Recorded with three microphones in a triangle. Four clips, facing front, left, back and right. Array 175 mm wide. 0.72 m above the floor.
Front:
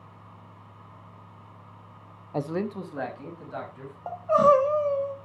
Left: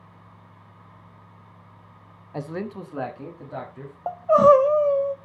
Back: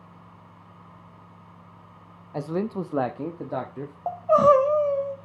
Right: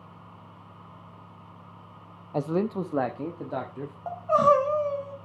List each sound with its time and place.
2.3 s a man speaking: 55° right, 0.5 m; by 4.0 s 155° right, 1.5 m
4.1 s crying: 120° left, 1.3 m